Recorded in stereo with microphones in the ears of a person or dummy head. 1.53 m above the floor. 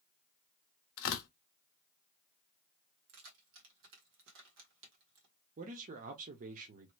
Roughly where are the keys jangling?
Right.